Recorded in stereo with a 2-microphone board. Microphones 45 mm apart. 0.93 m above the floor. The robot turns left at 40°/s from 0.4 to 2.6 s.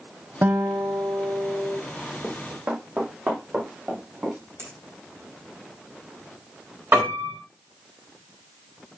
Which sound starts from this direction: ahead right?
A guitar, at 0.4 s.